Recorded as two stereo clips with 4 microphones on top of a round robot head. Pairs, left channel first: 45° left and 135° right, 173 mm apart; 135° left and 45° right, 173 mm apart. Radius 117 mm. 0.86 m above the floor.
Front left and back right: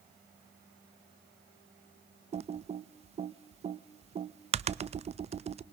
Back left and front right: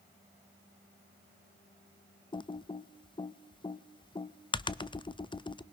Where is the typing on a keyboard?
170° right, 0.6 m.